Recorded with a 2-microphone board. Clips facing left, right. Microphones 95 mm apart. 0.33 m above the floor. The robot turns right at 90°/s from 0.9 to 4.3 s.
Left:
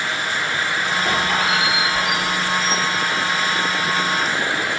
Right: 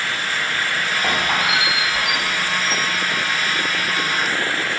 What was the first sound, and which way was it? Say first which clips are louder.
A squeak: even; 55° right (ahead or behind).